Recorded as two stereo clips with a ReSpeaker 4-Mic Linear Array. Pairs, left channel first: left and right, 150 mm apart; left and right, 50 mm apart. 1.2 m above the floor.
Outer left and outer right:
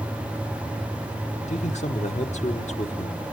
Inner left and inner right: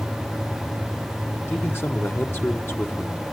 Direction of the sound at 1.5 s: 50° left (ahead or behind).